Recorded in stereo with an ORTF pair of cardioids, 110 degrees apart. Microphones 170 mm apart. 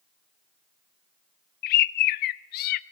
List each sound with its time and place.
1.6 s a bird: 70° left, 0.7 m